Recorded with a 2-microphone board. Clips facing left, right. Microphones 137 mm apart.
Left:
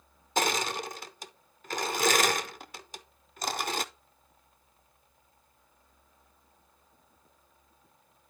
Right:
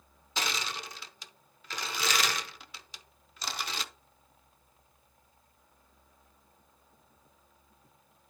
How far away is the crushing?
About 0.6 m.